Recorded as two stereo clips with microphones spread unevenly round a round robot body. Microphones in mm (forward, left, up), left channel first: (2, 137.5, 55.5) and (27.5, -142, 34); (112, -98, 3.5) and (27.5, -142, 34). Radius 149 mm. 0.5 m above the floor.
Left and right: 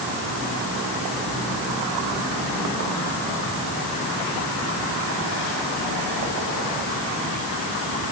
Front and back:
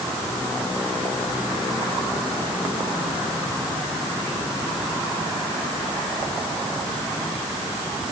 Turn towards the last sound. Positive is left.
No sound to turn to.